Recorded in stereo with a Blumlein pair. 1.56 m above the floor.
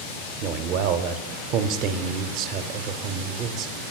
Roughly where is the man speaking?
Ahead right.